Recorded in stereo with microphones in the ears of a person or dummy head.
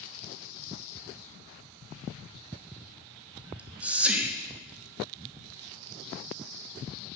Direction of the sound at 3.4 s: 5° right (ahead or behind).